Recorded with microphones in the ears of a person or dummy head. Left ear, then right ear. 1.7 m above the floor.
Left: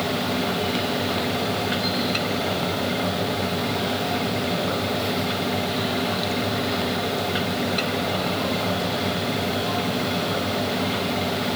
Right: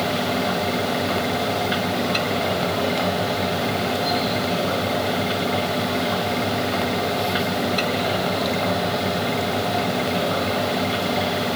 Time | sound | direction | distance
0.0 | a fan | 10° right (ahead or behind) | ?